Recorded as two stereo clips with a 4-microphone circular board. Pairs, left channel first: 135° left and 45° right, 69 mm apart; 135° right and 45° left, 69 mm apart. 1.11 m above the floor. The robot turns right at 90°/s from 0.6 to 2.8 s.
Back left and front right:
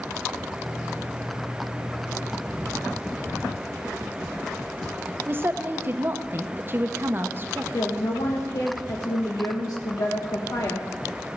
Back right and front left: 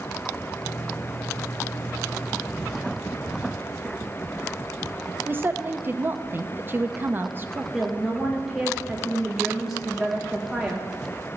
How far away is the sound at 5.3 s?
About 0.9 m.